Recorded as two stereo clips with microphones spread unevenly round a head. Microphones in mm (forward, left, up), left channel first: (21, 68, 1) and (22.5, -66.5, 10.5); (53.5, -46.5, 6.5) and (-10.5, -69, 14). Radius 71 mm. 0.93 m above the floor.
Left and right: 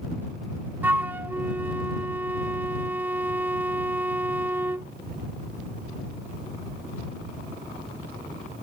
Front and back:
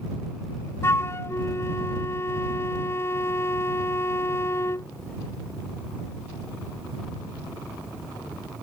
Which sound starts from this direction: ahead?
A flute, at 0.8 s.